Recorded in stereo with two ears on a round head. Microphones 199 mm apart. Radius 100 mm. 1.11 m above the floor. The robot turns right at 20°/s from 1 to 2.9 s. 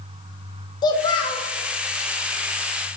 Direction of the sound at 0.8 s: 20° left (ahead or behind).